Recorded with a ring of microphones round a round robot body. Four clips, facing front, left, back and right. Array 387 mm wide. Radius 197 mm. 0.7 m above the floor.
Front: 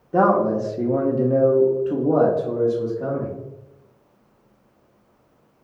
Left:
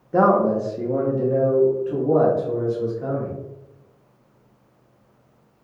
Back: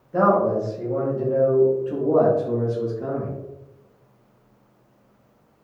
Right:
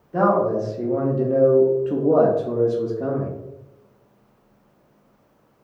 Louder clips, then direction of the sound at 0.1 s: Left 2 dB, front 1 dB; 40° left.